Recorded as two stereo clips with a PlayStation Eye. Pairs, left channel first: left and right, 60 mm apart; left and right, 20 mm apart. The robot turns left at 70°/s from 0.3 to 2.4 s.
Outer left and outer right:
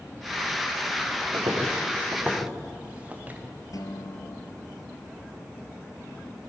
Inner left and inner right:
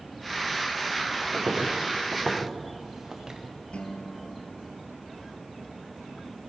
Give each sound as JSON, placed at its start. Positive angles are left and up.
{"t": 1.3, "sound": "footsteps", "side_deg": -75, "distance_m": 5.0}
{"t": 3.7, "sound": "a guitar", "side_deg": 65, "distance_m": 2.5}